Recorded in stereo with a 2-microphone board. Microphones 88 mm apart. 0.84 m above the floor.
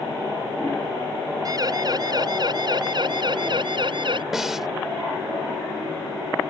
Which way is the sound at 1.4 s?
45° right (ahead or behind).